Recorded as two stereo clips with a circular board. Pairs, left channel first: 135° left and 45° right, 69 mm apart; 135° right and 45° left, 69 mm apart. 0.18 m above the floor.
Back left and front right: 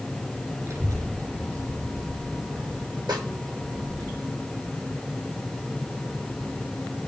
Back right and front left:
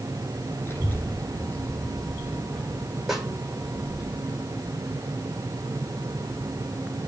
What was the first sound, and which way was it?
A child speaking, 85° right.